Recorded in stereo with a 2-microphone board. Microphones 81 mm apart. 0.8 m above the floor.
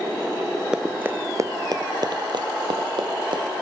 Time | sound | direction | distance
0.7 | running footsteps | 10° right (ahead or behind) | 0.8 m